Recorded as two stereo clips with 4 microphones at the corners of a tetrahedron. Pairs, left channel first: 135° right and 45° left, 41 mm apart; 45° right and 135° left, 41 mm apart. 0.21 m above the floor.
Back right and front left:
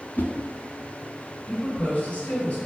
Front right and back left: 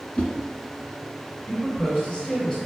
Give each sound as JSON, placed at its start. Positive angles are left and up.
{"t": 0.1, "sound": "a whoosh", "azimuth_deg": -105, "distance_m": 0.7}
{"t": 1.5, "sound": "a woman speaking", "azimuth_deg": -95, "distance_m": 1.4}